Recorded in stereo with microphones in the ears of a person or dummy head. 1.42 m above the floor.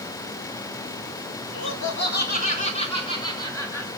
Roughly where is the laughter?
Left.